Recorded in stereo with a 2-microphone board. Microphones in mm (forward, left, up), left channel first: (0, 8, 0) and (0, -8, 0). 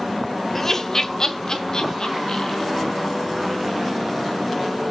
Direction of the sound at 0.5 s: 20° left (ahead or behind).